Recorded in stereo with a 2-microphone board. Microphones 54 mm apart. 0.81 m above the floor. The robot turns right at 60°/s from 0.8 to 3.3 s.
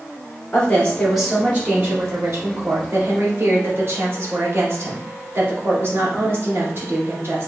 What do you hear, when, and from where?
0.5 s a woman speaking: 160° left, 1.8 m; by 7.5 s 50° right, 1.8 m